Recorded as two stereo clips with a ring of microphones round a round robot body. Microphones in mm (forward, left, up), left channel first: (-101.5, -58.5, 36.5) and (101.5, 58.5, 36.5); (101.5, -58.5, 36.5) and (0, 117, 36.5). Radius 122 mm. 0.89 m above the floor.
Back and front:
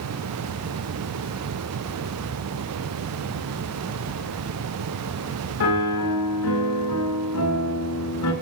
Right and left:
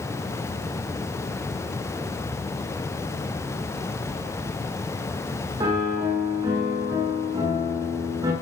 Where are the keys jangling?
Straight behind, 3 m.